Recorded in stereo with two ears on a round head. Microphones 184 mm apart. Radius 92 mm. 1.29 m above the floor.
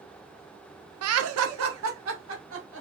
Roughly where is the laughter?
Right.